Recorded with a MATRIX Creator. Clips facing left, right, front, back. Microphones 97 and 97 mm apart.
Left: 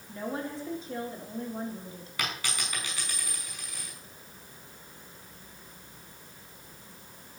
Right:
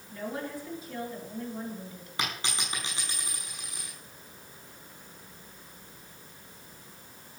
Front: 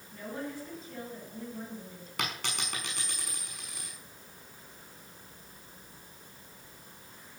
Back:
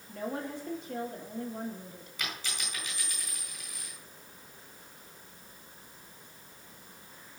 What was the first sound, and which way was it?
A woman speaking, 155° left.